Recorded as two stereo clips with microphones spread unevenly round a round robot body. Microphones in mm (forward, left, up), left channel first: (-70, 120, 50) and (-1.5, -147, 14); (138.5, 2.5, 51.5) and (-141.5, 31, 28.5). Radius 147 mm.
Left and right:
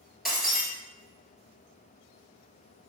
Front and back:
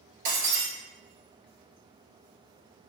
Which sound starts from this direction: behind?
Breaking glass, at 0.2 s.